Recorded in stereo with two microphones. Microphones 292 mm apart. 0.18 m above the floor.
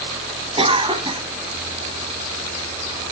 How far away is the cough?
About 1.0 m.